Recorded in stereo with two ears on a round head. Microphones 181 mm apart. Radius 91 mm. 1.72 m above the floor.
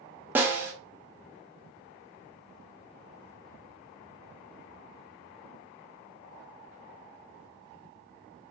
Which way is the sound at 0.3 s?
10° right (ahead or behind).